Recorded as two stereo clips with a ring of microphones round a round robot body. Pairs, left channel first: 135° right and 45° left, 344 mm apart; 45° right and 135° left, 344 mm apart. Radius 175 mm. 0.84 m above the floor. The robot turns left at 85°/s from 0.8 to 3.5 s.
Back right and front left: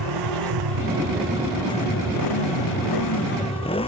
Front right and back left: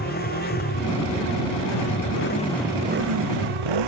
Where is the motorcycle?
20° left; by 3.9 s 150° left.